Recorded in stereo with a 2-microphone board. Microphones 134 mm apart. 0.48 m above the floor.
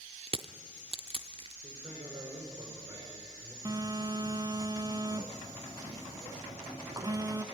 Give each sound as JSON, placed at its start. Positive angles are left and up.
{"t": 0.3, "sound": "crushing", "side_deg": -45, "distance_m": 0.6}
{"t": 1.6, "sound": "a man speaking", "side_deg": -30, "distance_m": 5.5}
{"t": 3.6, "sound": "a phone buzzing", "side_deg": -30, "distance_m": 0.7}